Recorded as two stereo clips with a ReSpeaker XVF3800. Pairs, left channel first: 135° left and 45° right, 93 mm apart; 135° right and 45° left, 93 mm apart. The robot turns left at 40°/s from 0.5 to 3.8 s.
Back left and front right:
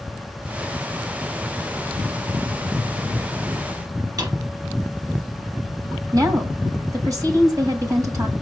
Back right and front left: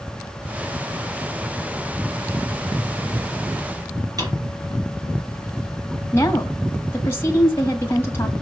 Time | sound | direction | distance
4.2 | a drawer | straight ahead | 3 m
6.1 | a woman speaking | 80° right | 2.0 m